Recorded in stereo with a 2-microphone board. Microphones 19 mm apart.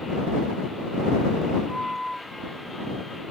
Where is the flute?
5° left (ahead or behind).